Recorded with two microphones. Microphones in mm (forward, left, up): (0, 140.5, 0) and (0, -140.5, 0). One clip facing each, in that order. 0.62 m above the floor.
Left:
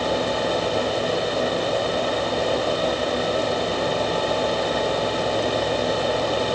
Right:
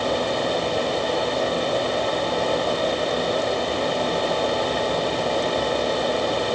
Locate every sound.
Only background noise.